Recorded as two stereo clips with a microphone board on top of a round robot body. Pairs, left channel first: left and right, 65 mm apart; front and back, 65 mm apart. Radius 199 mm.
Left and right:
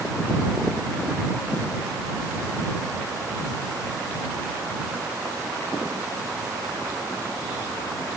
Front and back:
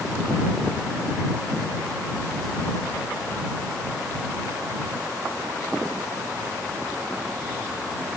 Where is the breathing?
No breathing in this recording.